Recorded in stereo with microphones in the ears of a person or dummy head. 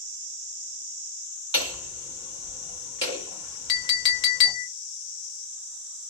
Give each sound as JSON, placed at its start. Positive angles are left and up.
{"t": 1.5, "sound": "hammering", "side_deg": 25, "distance_m": 1.8}
{"t": 3.7, "sound": "a clink", "side_deg": 30, "distance_m": 0.6}